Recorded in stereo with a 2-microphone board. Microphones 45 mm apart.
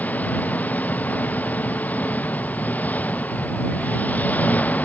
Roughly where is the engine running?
Left.